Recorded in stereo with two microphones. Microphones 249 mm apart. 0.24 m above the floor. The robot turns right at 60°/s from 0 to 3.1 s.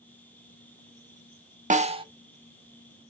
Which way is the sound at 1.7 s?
30° right (ahead or behind).